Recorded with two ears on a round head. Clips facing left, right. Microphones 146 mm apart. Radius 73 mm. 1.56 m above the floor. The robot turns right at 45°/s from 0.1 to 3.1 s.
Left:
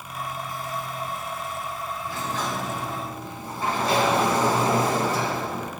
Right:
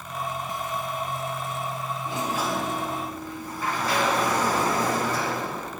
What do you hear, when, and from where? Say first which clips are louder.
2.1 s a sliding door: right 3 dB; 25° right, 2.5 m; by 5.7 s 25° left, 2.5 m